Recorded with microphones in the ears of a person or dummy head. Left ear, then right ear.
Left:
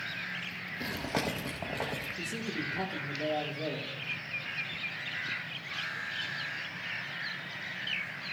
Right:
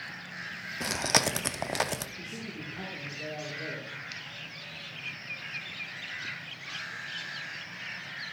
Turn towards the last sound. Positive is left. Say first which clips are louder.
# left 4 dB
turn(degrees=70)  # may be behind; listen again after turning